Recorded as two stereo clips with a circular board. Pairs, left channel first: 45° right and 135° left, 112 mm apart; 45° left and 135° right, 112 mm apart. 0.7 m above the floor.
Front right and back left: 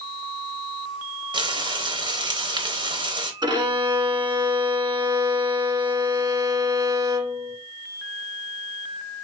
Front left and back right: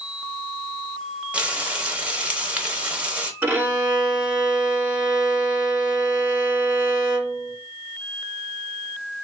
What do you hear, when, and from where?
1.3 s frying: 150° left, 0.8 m
3.4 s a violin: 155° left, 1.1 m